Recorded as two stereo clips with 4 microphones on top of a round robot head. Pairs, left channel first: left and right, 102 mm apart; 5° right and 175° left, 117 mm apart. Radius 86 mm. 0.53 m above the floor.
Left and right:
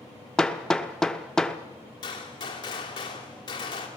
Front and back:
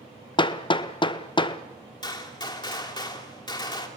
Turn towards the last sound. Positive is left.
turn(degrees=40)